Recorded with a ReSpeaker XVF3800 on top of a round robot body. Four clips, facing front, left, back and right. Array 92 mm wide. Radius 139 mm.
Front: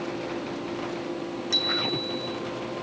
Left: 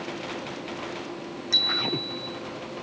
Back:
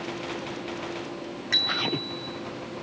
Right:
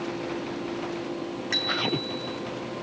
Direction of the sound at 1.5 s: 135° right.